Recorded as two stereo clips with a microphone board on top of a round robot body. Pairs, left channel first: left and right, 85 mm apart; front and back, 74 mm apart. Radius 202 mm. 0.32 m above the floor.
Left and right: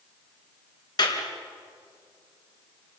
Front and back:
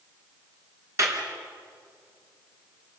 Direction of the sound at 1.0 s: 130° left.